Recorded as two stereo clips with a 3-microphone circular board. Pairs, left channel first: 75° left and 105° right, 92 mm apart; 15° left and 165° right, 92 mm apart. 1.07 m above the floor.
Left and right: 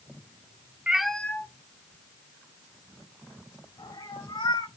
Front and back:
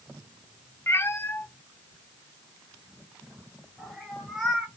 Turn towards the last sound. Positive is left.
turn(degrees=110)